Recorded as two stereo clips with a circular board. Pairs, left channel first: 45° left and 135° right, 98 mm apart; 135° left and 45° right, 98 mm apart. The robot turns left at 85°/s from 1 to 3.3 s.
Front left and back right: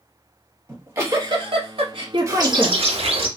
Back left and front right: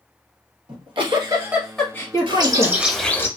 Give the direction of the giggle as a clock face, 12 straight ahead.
2 o'clock.